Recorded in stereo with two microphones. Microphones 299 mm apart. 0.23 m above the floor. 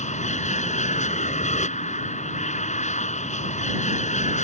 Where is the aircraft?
25° left (ahead or behind).